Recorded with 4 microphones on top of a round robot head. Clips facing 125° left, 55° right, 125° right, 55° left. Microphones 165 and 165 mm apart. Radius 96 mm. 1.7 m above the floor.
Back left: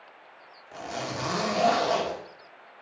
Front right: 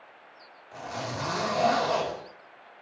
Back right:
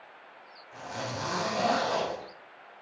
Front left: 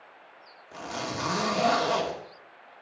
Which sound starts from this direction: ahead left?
A zipper, at 0.7 s.